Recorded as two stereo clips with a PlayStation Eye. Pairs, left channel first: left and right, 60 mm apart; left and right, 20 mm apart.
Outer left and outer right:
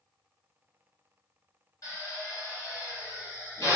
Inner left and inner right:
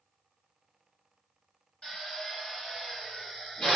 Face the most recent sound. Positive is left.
turn(degrees=60)  # may be behind; listen again after turning